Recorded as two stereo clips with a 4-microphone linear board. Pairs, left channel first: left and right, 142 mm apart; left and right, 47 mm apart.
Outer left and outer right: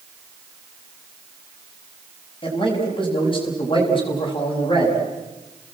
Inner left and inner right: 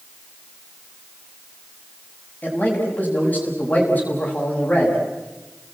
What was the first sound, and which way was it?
A man speaking, 35° left (ahead or behind).